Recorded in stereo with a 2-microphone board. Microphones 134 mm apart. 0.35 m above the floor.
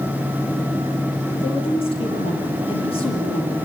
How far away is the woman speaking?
About 9.5 m.